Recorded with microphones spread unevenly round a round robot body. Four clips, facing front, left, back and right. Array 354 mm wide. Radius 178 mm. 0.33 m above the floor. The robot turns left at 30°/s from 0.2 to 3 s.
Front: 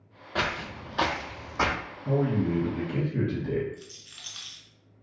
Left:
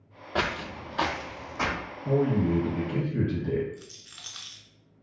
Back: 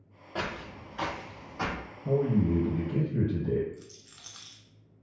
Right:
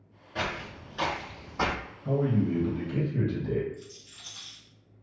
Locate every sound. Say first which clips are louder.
0.3 s footsteps: left 4 dB, front 5 dB; 70° left, 0.6 m; by 1.8 s 30° right, 1.1 m
2.0 s a man speaking: left 2 dB, even; 175° left, 1.8 m; by 3.6 s 145° left, 1.8 m
3.7 s a rattle: even, front 3 dB; 85° left, 0.7 m